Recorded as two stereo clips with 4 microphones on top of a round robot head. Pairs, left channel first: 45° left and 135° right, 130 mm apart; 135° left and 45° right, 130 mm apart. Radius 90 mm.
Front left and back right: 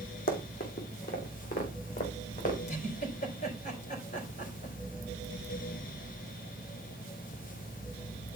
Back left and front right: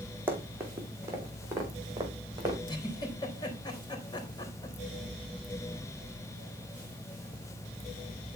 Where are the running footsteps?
30° left, 2.5 m; by 2.6 s 15° left, 3.5 m.